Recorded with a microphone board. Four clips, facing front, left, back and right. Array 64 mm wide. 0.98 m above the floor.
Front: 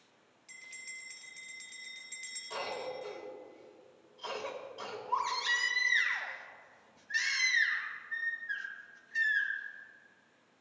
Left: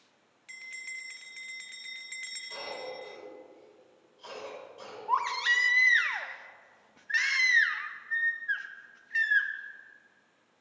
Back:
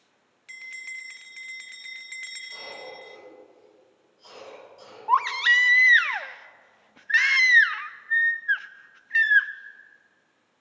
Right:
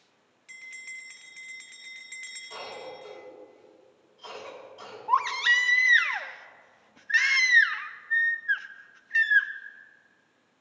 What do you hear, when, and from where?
0.5 s a bell: 170° left, 0.6 m
2.5 s a cough: straight ahead, 5 m
5.1 s a baby crying: 170° right, 0.5 m